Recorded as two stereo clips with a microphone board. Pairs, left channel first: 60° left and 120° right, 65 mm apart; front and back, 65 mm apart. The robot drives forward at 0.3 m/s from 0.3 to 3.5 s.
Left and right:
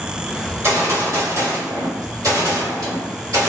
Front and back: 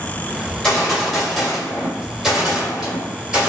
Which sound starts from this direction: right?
A gunshot, at 0.5 s.